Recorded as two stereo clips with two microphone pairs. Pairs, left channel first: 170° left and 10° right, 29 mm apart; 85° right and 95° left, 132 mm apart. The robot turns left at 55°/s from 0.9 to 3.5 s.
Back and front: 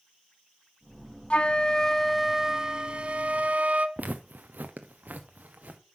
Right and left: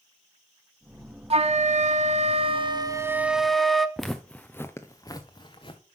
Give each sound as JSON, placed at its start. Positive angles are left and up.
{"t": 1.3, "sound": "a flute", "azimuth_deg": 125, "distance_m": 0.7}
{"t": 4.0, "sound": "footsteps", "azimuth_deg": 10, "distance_m": 1.0}